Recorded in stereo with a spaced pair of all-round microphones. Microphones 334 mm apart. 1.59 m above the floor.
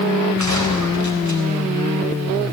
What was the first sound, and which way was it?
A gunshot, 55° left (ahead or behind).